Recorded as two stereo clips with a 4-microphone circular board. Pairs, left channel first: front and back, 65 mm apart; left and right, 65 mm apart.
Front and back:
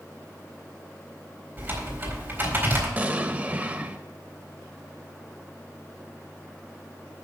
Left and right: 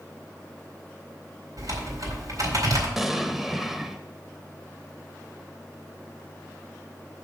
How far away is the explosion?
About 0.7 m.